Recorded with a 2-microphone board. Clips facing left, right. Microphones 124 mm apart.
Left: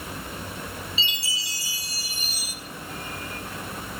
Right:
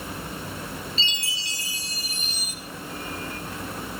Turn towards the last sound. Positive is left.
turn(degrees=5)  # may be behind; listen again after turning